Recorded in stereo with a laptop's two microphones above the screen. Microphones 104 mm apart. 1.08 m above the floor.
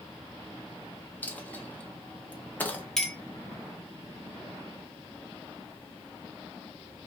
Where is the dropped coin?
15° left (ahead or behind), 0.5 m.